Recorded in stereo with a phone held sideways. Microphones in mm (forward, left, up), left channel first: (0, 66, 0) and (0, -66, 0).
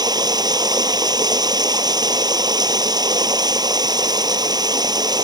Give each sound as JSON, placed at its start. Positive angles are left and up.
{"t": 0.0, "sound": "running water", "side_deg": -30}